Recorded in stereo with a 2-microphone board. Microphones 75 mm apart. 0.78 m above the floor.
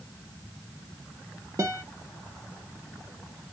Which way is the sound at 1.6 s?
45° right (ahead or behind).